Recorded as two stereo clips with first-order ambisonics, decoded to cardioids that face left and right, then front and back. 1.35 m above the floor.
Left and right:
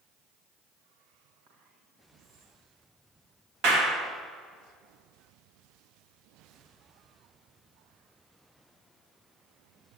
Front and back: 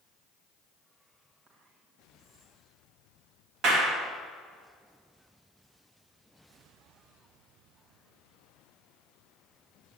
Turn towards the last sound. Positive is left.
turn(degrees=-130)